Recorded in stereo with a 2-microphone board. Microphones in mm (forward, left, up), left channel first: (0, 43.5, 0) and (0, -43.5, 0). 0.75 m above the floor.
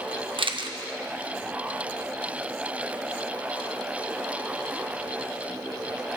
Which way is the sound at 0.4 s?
70° right (ahead or behind).